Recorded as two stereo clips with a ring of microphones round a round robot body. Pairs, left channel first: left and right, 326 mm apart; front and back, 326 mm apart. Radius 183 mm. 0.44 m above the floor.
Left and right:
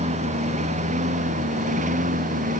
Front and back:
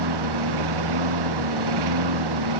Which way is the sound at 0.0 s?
160° right.